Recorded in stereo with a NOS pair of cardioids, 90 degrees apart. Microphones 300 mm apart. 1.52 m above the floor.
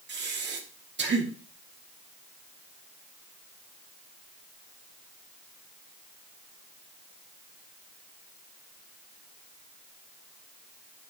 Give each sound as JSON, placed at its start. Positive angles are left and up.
{"t": 0.1, "sound": "breathing", "azimuth_deg": -40, "distance_m": 2.0}